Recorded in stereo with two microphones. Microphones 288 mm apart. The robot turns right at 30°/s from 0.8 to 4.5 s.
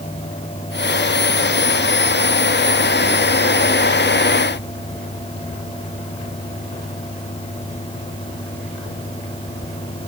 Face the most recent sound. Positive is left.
No sound to turn to.